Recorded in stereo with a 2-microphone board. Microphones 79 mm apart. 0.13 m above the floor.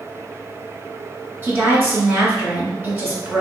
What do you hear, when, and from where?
1.4 s a woman speaking: 25° right (ahead or behind), 1.4 m